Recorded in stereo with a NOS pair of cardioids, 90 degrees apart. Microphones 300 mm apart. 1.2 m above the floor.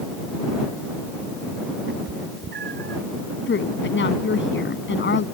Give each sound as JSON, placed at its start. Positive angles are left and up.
{"t": 1.9, "sound": "a cat meowing", "azimuth_deg": -45}
{"t": 3.5, "sound": "a woman speaking", "azimuth_deg": 40}